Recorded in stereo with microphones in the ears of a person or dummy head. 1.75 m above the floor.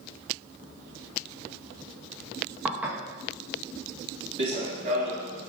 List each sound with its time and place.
2.6 s dishes clattering: 10° right (ahead or behind), 1.5 m
4.4 s running footsteps: 30° right (ahead or behind), 1.9 m; by 5.5 s 40° right (ahead or behind), 2 m